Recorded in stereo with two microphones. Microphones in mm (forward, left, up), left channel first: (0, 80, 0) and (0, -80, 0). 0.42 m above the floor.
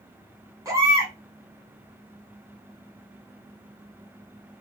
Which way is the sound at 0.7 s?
20° right (ahead or behind).